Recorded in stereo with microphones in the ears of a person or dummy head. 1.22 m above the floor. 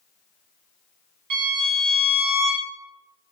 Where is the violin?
50° right (ahead or behind), 1.2 m.